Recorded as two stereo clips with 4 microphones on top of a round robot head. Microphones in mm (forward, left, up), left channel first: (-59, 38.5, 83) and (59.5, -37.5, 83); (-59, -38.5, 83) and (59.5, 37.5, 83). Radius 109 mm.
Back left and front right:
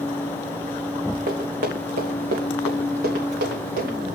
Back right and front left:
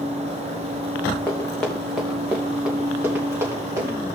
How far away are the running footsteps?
About 1.8 m.